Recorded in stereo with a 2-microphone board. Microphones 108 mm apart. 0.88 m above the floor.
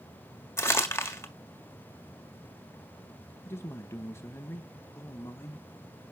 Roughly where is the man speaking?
Left.